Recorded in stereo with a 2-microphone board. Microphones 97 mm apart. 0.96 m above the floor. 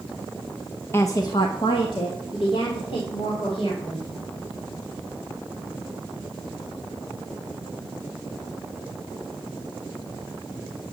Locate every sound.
0.9 s a woman speaking: 25° left (ahead or behind), 0.8 m; by 4.1 s 70° left (ahead or behind), 5 m